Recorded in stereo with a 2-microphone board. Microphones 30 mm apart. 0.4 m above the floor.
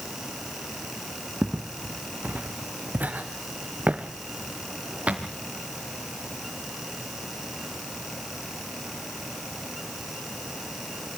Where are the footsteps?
75° right (ahead or behind), 2 m; by 5.3 s 45° right (ahead or behind), 3 m.